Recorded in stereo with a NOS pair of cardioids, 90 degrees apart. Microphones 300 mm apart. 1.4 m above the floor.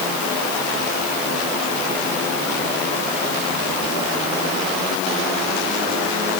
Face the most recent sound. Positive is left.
No sound to turn to.